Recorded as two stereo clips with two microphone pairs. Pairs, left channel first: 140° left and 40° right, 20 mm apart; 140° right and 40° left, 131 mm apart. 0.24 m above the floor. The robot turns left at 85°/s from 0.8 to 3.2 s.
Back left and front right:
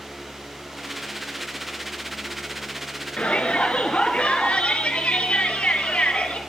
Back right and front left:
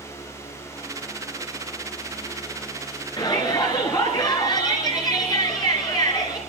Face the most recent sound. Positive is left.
turn(degrees=165)